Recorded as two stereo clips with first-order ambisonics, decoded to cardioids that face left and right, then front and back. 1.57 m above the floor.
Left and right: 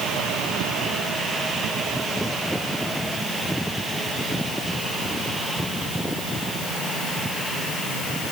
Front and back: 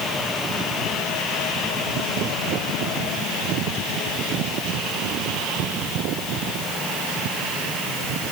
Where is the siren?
I don't hear a siren.